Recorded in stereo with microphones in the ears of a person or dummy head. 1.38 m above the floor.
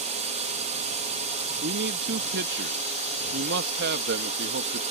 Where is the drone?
30° right (ahead or behind).